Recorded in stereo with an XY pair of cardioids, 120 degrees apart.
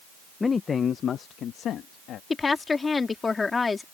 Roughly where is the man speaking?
Ahead.